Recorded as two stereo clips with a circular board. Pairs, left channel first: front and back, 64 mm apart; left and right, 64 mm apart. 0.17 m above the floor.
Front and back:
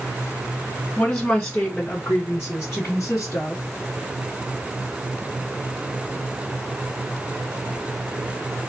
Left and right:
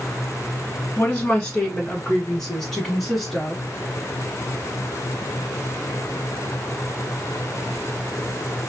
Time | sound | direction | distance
1.0 | a woman speaking | 45° left | 1.6 m